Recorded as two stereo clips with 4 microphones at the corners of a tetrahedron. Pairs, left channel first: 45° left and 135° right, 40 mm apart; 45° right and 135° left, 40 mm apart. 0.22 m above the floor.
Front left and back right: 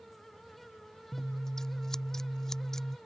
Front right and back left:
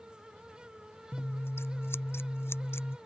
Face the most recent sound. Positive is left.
turn(degrees=-35)